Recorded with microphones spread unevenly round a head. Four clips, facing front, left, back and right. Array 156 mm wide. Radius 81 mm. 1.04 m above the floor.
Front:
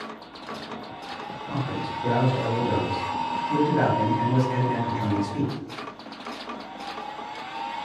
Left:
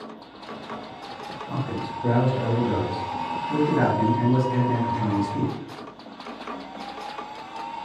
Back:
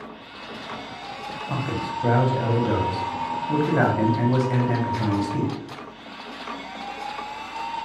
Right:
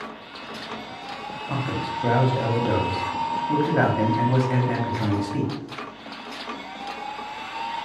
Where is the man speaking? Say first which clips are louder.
Right 2 dB, back 2 dB; 130° right, 0.9 m.